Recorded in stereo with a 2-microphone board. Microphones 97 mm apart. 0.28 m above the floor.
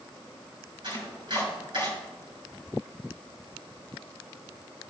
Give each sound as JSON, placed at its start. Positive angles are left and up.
{"t": 0.8, "sound": "chopping", "side_deg": -55, "distance_m": 4.5}